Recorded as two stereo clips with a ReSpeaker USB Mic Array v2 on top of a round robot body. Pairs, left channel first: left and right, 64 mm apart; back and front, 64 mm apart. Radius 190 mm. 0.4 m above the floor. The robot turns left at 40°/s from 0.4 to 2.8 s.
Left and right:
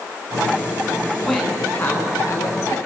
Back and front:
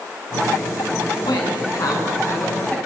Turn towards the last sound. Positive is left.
turn(degrees=115)